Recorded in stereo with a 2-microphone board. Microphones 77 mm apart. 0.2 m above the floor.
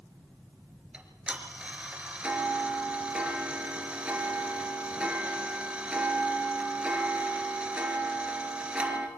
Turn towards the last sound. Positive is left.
turn(degrees=-15)  # may be behind; listen again after turning